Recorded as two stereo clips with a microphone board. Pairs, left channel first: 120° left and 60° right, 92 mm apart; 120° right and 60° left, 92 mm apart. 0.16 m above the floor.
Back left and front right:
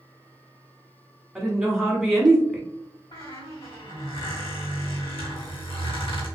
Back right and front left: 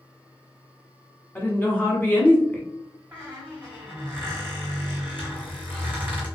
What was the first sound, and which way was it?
A woman speaking, 145° right.